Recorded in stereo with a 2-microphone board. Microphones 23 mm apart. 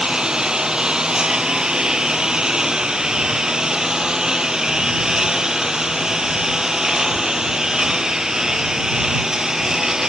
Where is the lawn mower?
30° right (ahead or behind); by 10.1 s 20° right (ahead or behind).